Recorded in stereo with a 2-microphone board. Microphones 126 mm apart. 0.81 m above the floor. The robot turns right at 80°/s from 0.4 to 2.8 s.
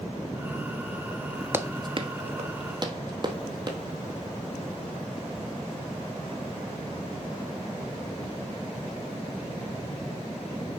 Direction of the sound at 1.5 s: 15° right (ahead or behind).